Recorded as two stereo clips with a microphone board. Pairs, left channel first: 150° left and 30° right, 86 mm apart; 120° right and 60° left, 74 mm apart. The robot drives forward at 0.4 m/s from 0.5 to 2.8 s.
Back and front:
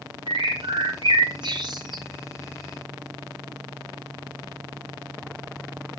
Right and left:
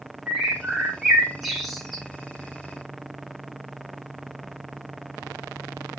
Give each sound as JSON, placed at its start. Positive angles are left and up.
{"t": 0.3, "sound": "a bird", "azimuth_deg": -25, "distance_m": 3.5}